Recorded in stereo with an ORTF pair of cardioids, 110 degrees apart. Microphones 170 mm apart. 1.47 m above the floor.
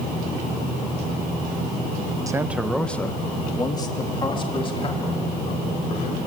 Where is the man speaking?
20° right, 1.4 m; by 6.2 s 40° left, 6 m.